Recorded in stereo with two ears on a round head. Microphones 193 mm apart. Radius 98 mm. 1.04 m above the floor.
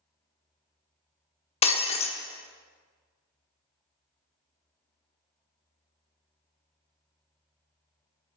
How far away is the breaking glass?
About 0.8 m.